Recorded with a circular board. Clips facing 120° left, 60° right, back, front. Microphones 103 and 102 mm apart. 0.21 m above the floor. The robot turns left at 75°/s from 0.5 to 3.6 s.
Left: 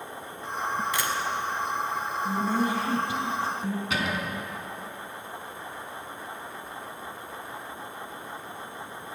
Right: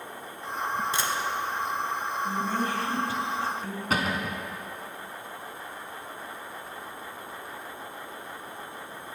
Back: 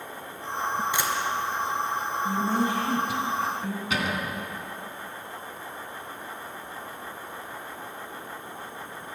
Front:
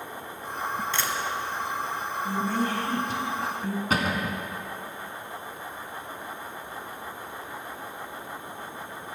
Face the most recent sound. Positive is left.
turn(degrees=-30)